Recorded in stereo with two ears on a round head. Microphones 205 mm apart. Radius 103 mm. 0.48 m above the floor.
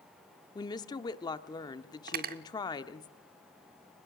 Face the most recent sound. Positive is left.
turn(degrees=-40)  # may be behind; listen again after turning